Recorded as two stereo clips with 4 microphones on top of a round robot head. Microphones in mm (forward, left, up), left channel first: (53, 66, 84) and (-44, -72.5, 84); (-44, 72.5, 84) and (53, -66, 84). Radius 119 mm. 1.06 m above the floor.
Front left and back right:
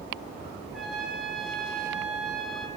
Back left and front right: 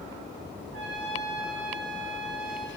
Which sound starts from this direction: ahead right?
A trumpet, at 0.7 s.